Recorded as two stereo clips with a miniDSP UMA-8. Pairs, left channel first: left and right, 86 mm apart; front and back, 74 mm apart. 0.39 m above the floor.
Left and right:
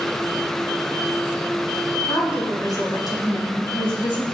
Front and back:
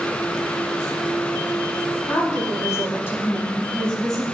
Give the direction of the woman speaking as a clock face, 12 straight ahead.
11 o'clock.